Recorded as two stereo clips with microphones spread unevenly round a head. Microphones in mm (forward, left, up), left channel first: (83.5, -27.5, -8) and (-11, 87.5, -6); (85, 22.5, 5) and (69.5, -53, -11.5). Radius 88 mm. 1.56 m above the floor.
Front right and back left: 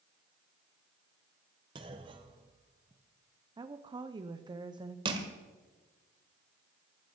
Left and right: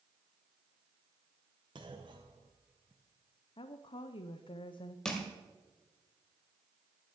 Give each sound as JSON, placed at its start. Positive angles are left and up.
{"t": 1.8, "sound": "a clunk", "azimuth_deg": -165, "distance_m": 0.8}
{"t": 3.6, "sound": "a woman speaking", "azimuth_deg": 65, "distance_m": 0.7}
{"t": 5.0, "sound": "crushing", "azimuth_deg": 130, "distance_m": 1.4}